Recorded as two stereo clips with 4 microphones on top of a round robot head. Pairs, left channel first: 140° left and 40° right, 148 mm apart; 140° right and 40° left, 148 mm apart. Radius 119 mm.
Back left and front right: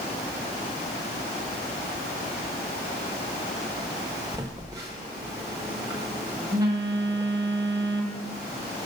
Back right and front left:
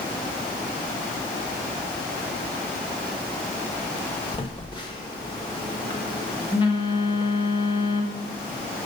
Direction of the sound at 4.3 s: 100° right.